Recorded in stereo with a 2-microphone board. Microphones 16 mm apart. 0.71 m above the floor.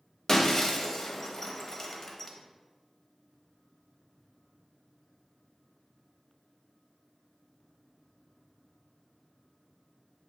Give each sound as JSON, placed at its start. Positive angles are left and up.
{"t": 0.3, "sound": "breaking glass", "side_deg": 30, "distance_m": 0.6}